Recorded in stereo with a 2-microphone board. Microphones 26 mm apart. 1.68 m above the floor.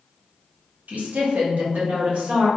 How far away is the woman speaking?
About 1.1 m.